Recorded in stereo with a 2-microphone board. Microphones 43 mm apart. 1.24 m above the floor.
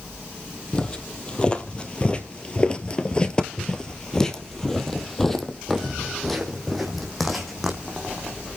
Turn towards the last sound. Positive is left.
turn(degrees=0)  # may be behind; listen again after turning